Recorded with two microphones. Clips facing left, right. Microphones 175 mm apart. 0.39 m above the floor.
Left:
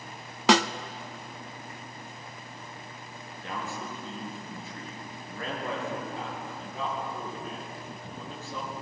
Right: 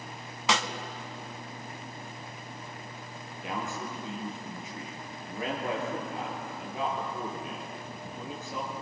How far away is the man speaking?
About 8 m.